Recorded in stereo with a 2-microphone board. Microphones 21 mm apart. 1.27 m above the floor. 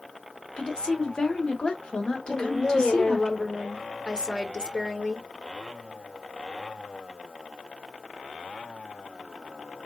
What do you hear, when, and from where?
0.6 s a woman speaking: 50° left (ahead or behind), 1.2 m
2.3 s a woman speaking: 45° left (ahead or behind), 1.2 m